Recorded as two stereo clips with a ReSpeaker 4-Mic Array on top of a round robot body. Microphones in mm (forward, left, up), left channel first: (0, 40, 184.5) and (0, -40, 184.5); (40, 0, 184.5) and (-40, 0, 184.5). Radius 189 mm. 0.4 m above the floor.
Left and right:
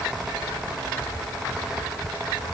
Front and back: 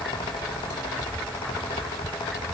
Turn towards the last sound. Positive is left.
No sound to turn to.